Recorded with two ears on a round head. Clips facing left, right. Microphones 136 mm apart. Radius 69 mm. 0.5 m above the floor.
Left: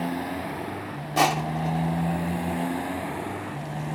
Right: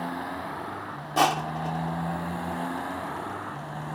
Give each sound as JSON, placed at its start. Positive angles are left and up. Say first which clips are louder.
{"t": 0.0, "sound": "a motorcycle", "louder": "left 4 dB", "side_deg": 20}
{"t": 1.2, "sound": "crushing", "louder": "left 1 dB", "side_deg": 10}